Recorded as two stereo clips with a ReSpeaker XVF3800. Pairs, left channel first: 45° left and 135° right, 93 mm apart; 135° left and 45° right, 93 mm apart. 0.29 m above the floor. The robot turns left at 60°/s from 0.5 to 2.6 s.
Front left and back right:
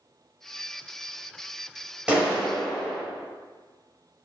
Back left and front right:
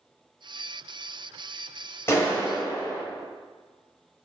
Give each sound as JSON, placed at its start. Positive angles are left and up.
{"t": 2.1, "sound": "a clap", "azimuth_deg": 160, "distance_m": 1.1}